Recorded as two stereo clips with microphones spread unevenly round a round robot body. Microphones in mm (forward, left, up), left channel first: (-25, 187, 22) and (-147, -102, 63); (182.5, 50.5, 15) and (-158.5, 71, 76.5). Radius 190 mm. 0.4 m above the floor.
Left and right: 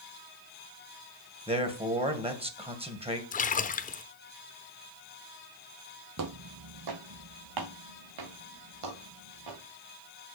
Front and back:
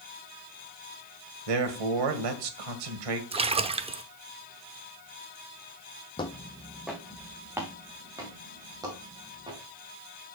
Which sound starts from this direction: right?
Footsteps, at 6.2 s.